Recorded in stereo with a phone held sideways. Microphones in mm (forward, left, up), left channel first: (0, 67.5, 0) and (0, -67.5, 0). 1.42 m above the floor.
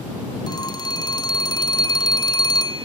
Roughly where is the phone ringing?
Left.